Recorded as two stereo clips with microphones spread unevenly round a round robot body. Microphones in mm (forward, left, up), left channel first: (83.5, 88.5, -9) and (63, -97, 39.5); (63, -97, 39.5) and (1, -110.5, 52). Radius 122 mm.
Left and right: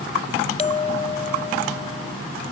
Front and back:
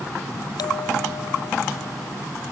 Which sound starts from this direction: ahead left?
A bell, at 0.6 s.